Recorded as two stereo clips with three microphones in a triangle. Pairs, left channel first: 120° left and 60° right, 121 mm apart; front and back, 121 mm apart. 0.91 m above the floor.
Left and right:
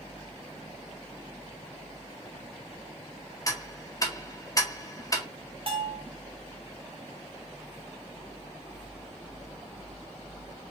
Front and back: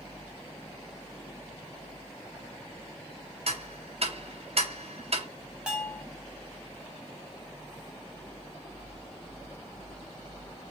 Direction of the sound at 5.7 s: 100° right.